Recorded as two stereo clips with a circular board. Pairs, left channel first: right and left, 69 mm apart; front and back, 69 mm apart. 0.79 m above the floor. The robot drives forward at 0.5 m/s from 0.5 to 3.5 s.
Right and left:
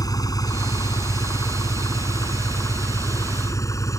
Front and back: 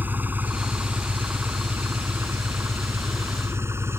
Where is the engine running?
115° right; by 4.0 s 130° right.